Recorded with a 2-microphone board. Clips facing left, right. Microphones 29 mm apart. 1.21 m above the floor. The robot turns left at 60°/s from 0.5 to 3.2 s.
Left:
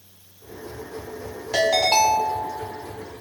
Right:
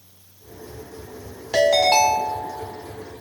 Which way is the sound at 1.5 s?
165° right.